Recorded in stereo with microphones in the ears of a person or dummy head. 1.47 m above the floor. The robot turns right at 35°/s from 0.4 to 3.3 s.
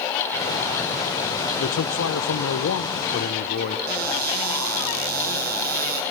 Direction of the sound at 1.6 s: 70° left.